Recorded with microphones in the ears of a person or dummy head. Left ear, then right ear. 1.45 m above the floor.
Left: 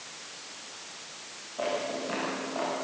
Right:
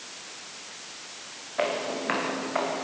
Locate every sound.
1.6 s footsteps: 70° right (ahead or behind), 8 m; by 2.8 s 60° right (ahead or behind), 7 m